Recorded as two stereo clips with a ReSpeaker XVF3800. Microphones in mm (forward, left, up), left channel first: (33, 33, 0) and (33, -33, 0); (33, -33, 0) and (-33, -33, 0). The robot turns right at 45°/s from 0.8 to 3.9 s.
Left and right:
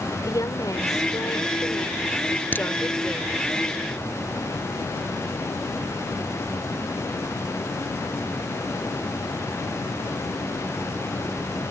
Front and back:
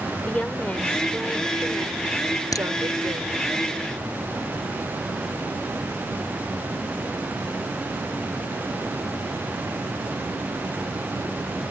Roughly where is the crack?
Ahead left.